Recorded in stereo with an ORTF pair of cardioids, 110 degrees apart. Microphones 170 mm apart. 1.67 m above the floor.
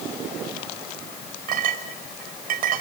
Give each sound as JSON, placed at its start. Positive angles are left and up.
{"t": 1.5, "sound": "a clink", "azimuth_deg": -60, "distance_m": 5.0}